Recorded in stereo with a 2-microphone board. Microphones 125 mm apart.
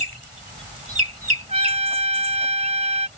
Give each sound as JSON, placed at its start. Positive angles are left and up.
{"t": 1.5, "sound": "a trumpet", "side_deg": -50}